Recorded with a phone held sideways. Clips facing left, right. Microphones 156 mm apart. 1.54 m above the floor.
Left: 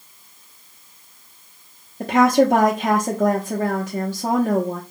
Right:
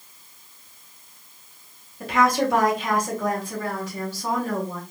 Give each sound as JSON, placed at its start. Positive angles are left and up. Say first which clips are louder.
{"t": 2.0, "sound": "a woman speaking", "louder": "left 6 dB", "side_deg": 45, "distance_m": 0.8}